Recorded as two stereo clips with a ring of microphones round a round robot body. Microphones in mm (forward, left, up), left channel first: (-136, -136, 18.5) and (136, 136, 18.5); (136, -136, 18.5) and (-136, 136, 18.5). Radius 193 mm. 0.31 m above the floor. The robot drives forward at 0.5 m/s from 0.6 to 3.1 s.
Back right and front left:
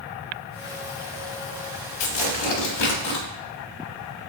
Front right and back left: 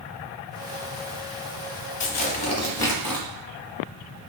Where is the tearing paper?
105° right, 1.1 m; by 3.2 s 130° right, 1.3 m.